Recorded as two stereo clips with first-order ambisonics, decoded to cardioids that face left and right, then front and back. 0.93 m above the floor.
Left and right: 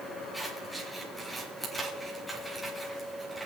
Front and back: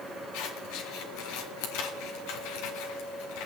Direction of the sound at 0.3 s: 5° left.